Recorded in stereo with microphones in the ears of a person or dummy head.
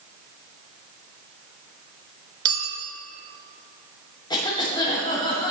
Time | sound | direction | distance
2.5 | a clink | 30° right (ahead or behind) | 1.1 m
4.3 | a cough | 25° left (ahead or behind) | 3.5 m